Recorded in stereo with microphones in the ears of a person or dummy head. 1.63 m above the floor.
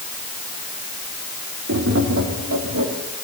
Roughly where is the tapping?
Right.